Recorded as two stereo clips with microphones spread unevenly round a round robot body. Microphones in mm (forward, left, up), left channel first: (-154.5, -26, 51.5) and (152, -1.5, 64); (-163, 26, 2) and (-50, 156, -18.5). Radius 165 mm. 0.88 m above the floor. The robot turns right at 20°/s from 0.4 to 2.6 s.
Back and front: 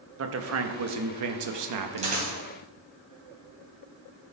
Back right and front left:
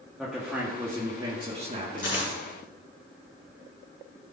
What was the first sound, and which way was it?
A man speaking, 35° right.